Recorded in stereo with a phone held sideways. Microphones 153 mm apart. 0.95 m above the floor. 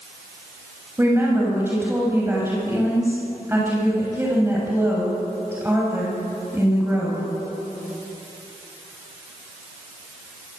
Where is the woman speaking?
15° right (ahead or behind), 6.5 m.